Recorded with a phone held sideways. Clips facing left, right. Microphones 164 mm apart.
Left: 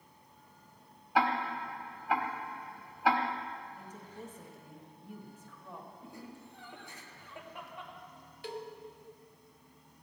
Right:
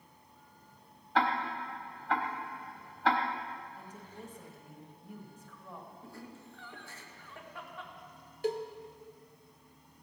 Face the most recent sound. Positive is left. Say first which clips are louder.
# right 9 dB
turn(degrees=-45)  # may be behind; listen again after turning